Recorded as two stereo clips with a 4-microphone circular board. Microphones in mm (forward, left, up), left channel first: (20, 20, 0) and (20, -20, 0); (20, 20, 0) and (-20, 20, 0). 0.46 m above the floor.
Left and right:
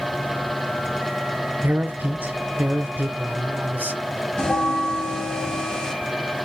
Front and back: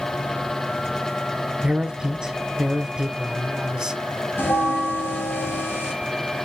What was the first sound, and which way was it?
A man speaking, 115° right.